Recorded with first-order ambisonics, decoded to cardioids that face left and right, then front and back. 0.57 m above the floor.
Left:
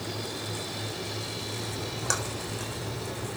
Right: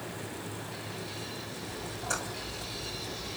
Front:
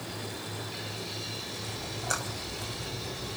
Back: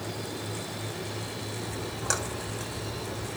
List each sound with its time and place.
1.7 s a splash: 130° left, 7 m